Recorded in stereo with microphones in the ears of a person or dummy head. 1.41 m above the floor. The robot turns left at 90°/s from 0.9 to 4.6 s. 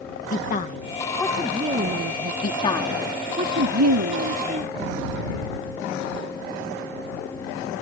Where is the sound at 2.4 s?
50° left; by 4.8 s 150° right.